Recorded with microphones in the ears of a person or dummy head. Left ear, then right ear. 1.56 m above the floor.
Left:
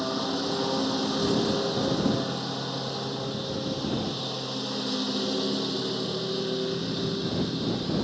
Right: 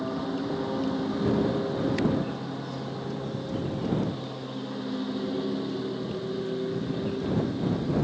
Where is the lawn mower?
85° left.